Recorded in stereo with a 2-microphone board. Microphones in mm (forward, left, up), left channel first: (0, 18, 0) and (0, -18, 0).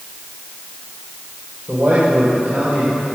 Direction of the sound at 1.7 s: 40° right (ahead or behind).